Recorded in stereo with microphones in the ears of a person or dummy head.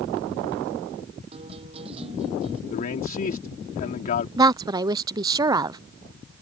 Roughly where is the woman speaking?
Centre.